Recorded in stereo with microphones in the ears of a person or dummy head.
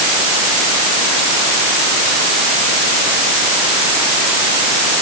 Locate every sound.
Only background noise.